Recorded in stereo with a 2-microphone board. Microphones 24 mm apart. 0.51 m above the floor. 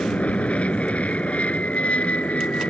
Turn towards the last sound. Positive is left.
turn(degrees=65)  # may be behind; listen again after turning